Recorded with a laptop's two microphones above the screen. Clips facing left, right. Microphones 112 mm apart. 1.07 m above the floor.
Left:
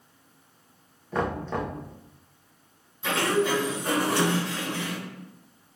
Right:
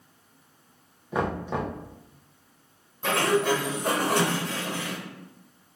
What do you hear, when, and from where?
1.1 s knocking: 10° right (ahead or behind), 1.1 m
3.0 s a sliding door: 55° right (ahead or behind), 1.8 m